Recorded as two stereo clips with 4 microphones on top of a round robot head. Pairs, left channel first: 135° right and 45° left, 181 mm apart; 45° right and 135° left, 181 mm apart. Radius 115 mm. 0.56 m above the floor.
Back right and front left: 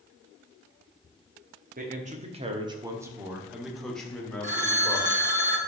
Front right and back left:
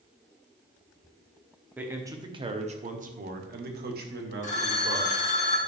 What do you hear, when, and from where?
1.8 s a man speaking: 55° left, 1.2 m; by 5.1 s 150° left, 2.5 m
4.4 s a phone ringing: straight ahead, 1.6 m